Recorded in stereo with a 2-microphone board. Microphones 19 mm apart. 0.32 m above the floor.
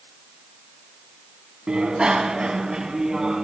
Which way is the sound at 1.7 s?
55° right (ahead or behind).